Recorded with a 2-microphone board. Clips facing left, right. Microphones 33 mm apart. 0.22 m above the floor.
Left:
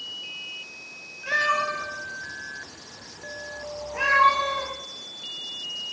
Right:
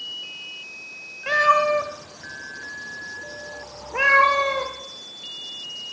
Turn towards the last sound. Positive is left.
turn(degrees=-80)